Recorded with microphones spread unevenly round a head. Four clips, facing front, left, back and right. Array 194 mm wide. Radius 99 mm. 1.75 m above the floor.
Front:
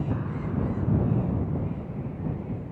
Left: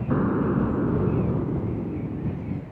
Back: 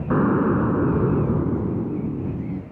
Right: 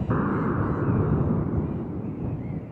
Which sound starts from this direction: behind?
An explosion, at 0.1 s.